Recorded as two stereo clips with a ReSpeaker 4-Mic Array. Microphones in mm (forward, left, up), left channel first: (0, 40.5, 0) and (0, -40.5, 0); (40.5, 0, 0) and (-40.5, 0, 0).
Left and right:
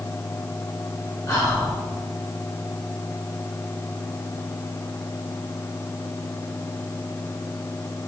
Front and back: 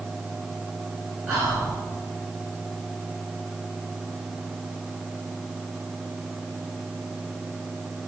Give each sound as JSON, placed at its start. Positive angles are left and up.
{"t": 1.3, "sound": "whispering", "azimuth_deg": 100, "distance_m": 1.5}